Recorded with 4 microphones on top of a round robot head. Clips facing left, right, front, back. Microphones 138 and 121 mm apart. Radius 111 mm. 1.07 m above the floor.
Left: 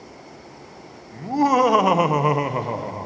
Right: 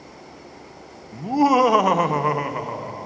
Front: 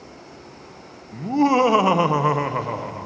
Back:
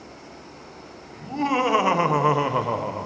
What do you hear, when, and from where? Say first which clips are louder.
1.1 s laughter: right 1 dB, front 6 dB; 20° right, 1.0 m; by 3.1 s 130° left, 1.0 m